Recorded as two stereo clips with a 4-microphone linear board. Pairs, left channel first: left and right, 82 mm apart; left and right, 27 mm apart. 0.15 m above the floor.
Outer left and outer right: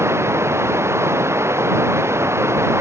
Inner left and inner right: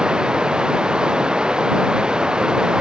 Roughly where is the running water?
Right.